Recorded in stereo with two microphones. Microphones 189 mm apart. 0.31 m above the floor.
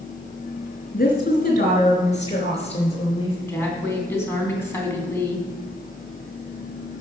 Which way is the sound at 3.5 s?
15° left (ahead or behind).